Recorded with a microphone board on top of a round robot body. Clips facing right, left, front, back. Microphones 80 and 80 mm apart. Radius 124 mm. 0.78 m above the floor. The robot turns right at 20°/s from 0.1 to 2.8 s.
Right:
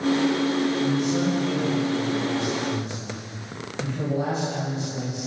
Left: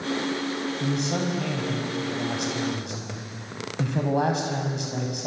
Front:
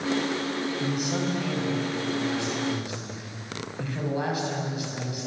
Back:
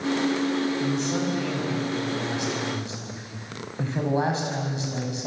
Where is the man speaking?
75° left, 6 m; by 5.3 s 115° left, 6 m.